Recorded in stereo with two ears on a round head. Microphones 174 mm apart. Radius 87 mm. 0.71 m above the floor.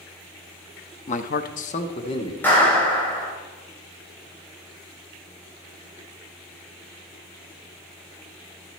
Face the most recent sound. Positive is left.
turn(degrees=10)  # may be behind; listen again after turning